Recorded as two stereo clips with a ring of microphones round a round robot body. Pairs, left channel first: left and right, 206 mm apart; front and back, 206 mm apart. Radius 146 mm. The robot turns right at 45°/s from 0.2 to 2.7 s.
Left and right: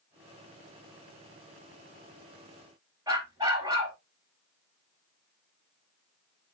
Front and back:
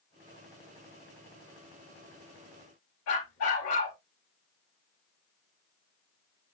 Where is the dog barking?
15° right, 6 m.